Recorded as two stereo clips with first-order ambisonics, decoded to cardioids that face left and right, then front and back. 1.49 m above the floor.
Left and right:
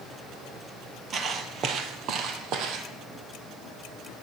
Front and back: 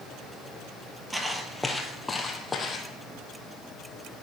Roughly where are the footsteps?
Right.